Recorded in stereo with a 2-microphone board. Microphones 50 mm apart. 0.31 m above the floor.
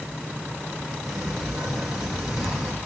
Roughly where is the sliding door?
Centre.